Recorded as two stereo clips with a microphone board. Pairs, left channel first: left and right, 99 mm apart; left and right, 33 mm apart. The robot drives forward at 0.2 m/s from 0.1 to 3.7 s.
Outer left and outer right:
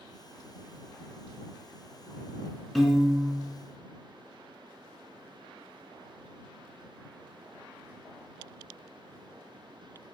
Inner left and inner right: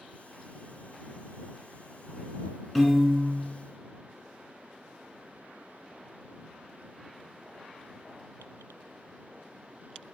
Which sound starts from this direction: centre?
A piano, at 2.8 s.